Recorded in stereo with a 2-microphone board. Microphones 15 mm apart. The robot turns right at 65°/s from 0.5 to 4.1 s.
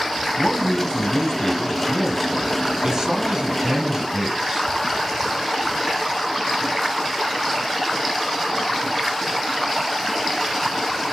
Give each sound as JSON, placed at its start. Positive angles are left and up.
{"t": 0.4, "sound": "a man speaking", "azimuth_deg": 75, "distance_m": 2.0}